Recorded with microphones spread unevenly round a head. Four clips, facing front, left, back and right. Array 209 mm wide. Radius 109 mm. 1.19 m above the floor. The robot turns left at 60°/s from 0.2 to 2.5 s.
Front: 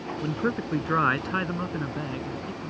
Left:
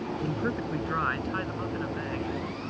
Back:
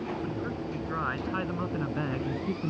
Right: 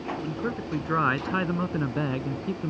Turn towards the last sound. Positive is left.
turn(degrees=-120)